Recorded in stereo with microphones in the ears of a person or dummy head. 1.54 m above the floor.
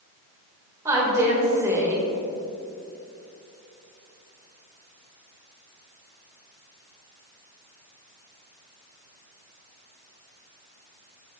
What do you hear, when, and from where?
0.8 s a woman speaking: 15° right (ahead or behind), 1.8 m